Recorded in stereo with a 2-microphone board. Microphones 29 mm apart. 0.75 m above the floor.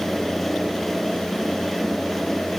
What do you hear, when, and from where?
Only background noise.